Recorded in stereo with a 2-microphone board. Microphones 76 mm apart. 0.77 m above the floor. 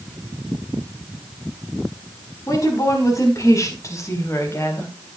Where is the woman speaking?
50° left (ahead or behind), 5 m; by 4.9 s 35° left (ahead or behind), 3.5 m.